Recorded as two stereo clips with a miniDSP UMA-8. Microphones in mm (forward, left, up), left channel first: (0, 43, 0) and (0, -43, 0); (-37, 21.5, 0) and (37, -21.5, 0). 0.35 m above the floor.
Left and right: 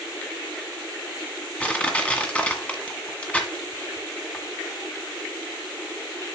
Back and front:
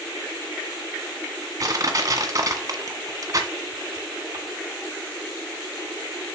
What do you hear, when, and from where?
1.6 s crushing: 15° left, 1.9 m